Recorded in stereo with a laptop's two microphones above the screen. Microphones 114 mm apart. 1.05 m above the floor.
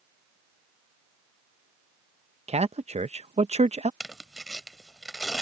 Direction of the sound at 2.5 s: 70° right (ahead or behind).